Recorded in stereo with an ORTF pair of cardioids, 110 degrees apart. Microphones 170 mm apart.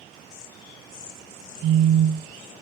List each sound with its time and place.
1.6 s a phone buzzing: 30° right, 0.6 m